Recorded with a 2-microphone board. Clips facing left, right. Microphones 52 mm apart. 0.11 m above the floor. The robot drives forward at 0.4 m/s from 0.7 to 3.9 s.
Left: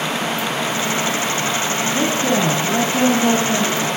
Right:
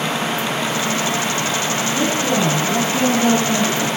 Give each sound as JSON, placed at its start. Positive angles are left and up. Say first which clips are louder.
{"t": 1.9, "sound": "a woman speaking", "louder": "left 1 dB", "side_deg": 30, "distance_m": 2.0}